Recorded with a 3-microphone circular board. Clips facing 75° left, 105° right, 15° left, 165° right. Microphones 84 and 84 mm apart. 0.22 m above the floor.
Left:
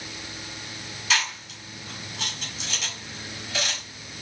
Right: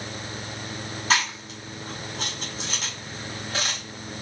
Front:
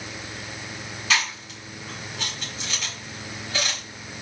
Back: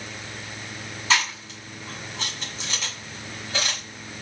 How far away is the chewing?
About 2 m.